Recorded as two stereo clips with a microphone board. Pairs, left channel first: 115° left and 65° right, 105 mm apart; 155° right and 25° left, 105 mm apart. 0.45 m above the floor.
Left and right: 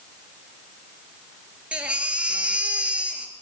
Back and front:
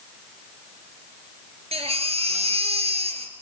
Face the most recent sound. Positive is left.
turn(degrees=10)